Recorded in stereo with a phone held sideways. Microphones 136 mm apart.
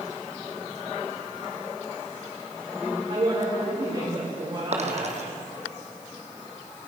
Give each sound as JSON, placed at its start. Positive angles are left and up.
{"t": 3.1, "sound": "a woman speaking", "side_deg": -50, "distance_m": 5.5}
{"t": 4.7, "sound": "a dropped coin", "side_deg": -55, "distance_m": 2.5}